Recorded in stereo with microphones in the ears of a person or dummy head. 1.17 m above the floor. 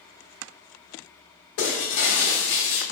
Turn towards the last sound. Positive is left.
turn(degrees=55)  # may be behind; listen again after turning